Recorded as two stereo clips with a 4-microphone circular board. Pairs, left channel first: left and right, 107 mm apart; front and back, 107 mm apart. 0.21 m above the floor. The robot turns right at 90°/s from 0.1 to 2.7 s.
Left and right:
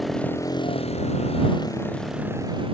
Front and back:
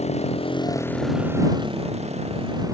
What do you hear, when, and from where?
0.0 s a motorcycle: straight ahead; by 2.8 s 125° right